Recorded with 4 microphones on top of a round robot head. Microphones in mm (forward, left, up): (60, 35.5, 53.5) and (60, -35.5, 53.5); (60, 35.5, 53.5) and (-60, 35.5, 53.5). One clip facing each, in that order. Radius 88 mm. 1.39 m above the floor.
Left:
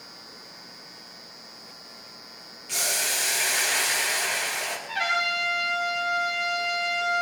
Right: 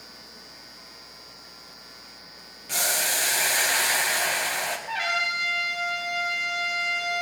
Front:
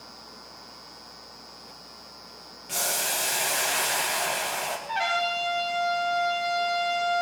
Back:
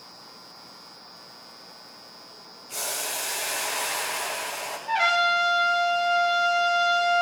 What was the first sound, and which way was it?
Boiling, 40° right.